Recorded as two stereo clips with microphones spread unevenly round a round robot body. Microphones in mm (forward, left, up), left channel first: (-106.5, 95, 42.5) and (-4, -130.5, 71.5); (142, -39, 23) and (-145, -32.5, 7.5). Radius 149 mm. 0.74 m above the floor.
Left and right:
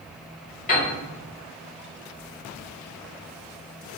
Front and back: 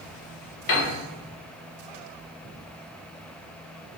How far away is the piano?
About 0.9 m.